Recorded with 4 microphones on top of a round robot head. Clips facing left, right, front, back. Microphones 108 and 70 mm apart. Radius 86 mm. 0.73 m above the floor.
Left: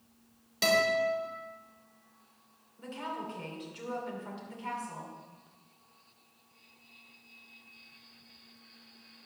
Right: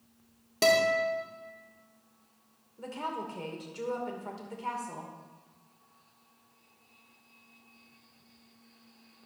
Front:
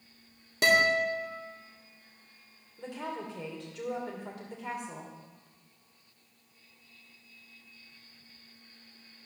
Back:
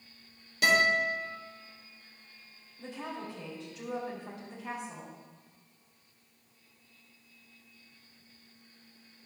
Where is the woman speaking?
40° right, 2.5 m.